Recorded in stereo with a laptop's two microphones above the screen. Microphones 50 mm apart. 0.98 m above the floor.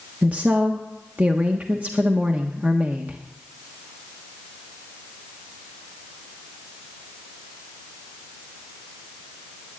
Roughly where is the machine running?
I don't hear a machine running.